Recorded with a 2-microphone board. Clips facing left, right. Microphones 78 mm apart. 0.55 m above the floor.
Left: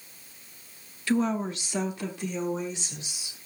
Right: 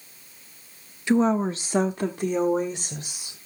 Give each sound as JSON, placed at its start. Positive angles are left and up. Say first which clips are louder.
{"t": 1.1, "sound": "a woman speaking", "louder": "right 5 dB", "side_deg": -25, "distance_m": 0.6}